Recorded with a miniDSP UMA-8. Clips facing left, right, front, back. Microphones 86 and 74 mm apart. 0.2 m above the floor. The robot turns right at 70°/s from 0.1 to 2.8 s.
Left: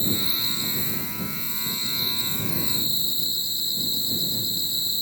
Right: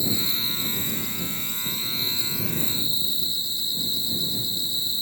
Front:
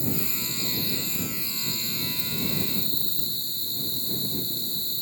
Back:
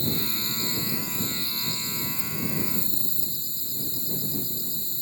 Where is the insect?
165° right; by 5.0 s 25° left.